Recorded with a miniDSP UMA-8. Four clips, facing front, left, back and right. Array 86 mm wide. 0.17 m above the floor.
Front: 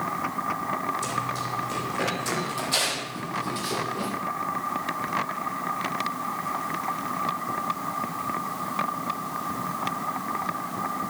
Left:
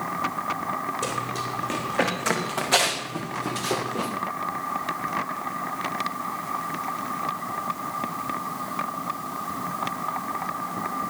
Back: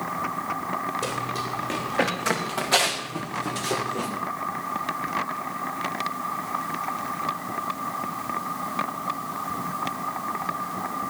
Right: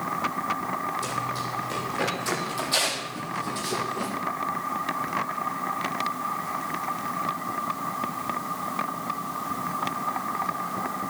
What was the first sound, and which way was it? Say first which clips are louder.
Running footsteps: left 1 dB, even; 135° left.